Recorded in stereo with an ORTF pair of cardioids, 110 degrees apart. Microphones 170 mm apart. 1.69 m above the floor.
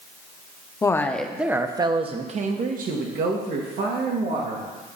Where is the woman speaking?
20° left, 1.2 m; by 4.6 s 75° right, 3 m.